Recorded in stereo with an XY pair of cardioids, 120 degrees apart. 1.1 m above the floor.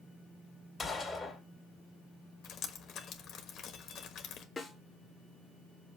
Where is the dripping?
55° left, 1.3 m.